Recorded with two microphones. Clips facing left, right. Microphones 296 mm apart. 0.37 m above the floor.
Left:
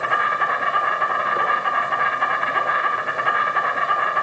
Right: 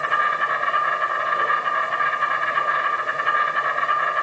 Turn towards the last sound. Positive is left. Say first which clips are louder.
# left 2 dB
turn(degrees=70)  # may be behind; listen again after turning